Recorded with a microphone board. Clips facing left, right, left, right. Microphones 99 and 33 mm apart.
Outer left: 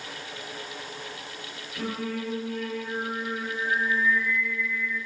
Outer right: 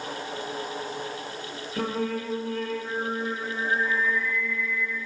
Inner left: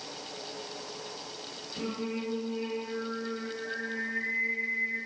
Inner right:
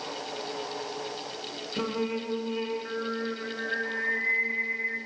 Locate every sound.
1.8 s singing: 70° right (ahead or behind), 2.5 m